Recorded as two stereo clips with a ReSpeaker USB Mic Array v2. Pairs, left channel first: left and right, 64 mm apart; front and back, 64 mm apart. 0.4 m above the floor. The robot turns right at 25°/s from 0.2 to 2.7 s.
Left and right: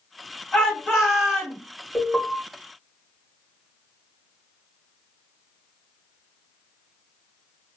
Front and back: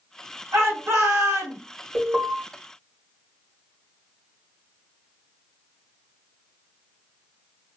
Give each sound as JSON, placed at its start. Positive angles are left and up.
{"t": 0.5, "sound": "a shout", "azimuth_deg": 160, "distance_m": 1.9}
{"t": 1.9, "sound": "an alarm", "azimuth_deg": 170, "distance_m": 1.6}